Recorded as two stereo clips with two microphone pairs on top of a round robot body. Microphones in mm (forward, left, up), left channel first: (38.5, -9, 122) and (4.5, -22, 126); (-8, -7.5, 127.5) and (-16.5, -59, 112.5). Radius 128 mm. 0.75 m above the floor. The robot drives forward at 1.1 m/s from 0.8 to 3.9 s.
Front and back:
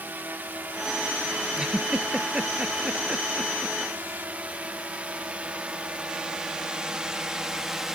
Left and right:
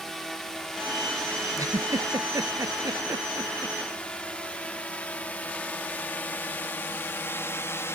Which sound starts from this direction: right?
A giggle, at 1.6 s.